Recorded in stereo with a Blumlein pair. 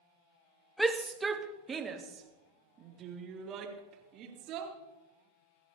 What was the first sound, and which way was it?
A shout, 5° right.